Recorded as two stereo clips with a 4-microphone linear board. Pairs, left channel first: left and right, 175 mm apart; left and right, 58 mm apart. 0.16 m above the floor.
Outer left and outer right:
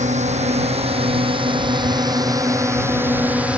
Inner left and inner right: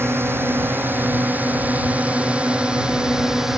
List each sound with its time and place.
0.0 s a drone: 45° right (ahead or behind); by 3.6 s 5° right (ahead or behind)